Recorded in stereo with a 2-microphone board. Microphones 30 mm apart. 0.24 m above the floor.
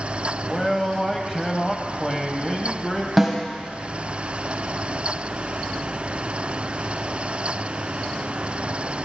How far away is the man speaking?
About 1.0 m.